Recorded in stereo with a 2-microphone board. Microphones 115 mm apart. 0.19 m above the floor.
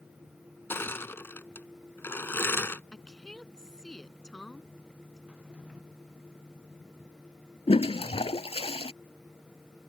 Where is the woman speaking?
5° left (ahead or behind).